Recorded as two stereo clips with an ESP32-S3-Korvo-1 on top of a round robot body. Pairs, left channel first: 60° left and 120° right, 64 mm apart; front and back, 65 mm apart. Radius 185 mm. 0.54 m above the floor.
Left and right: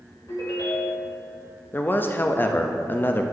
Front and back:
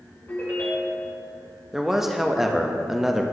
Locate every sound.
0.3 s a ringtone: 50° left, 2 m
1.7 s a man speaking: 100° left, 0.7 m